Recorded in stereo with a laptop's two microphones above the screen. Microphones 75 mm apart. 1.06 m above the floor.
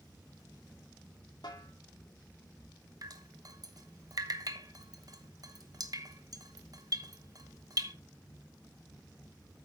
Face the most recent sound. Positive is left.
turn(degrees=-55)  # may be behind; listen again after turning